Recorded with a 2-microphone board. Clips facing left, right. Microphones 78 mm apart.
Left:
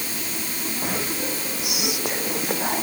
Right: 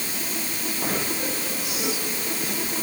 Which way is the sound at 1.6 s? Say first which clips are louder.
Left 3 dB; 70° left (ahead or behind).